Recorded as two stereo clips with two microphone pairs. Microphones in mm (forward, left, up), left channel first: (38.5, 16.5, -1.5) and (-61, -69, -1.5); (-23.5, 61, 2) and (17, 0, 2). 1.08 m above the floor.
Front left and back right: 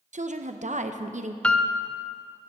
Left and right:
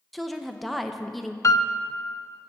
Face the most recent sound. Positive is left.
turn(degrees=125)